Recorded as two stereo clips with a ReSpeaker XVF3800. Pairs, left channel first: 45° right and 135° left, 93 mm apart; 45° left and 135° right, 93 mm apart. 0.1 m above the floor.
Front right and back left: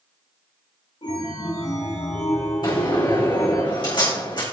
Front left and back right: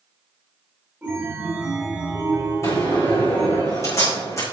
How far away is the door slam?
About 6 m.